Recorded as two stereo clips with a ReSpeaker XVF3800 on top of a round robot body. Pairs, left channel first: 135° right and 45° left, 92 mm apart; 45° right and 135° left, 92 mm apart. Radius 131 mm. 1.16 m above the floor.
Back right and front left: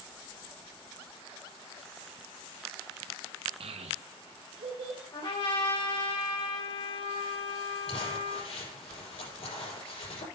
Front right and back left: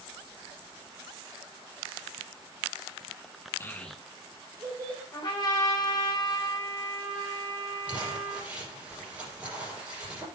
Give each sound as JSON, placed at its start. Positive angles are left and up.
{"t": 3.6, "sound": "a child speaking", "azimuth_deg": 20, "distance_m": 0.8}
{"t": 5.1, "sound": "a trumpet", "azimuth_deg": -95, "distance_m": 3.5}
{"t": 7.9, "sound": "crumpling", "azimuth_deg": -150, "distance_m": 5.5}